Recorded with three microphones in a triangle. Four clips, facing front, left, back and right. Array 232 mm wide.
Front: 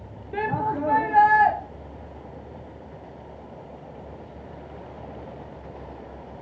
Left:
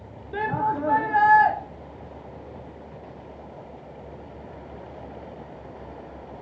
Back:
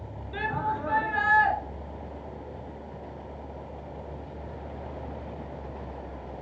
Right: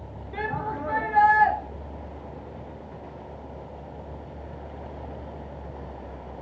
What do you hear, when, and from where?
0.3 s a shout: 35° left, 2.0 m